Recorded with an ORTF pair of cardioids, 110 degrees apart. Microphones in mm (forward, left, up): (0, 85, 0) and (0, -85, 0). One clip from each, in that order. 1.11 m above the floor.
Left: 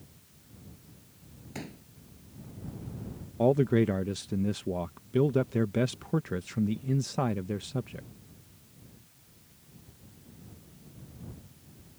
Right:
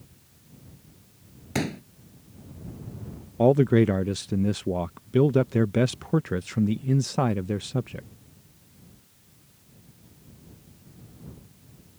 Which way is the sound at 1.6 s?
70° right.